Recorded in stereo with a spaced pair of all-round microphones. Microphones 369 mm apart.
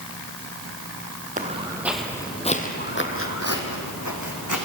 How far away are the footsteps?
About 2 m.